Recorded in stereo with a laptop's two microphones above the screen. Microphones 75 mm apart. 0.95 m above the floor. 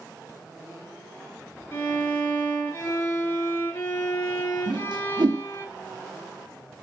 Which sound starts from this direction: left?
A violin, at 1.7 s.